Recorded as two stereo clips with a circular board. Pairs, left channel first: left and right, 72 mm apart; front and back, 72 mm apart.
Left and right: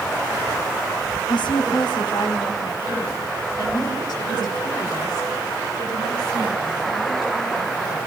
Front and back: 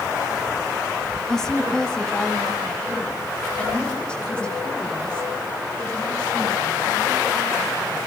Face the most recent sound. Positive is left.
turn(degrees=75)